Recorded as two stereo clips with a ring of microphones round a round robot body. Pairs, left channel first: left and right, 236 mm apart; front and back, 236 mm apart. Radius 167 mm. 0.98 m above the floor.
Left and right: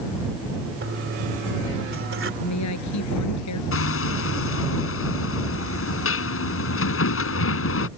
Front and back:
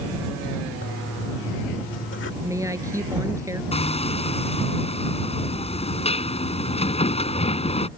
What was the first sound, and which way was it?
A toilet flushing, 55° right.